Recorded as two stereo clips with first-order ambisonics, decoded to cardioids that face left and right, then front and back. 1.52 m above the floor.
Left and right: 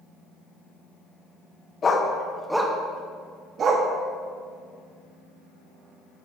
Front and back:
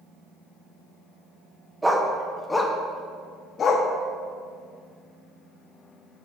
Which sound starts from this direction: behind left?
A dog barking, at 1.8 s.